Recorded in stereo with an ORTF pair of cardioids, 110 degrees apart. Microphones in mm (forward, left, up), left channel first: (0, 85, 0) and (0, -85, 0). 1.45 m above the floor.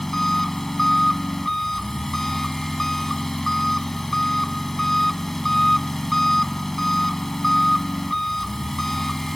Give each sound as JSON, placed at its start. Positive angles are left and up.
{"t": 0.0, "sound": "an engine running", "azimuth_deg": 0}